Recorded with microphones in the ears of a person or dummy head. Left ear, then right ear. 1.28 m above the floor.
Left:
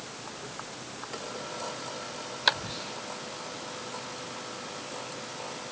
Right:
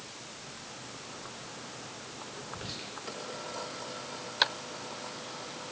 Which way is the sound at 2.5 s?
75° right (ahead or behind).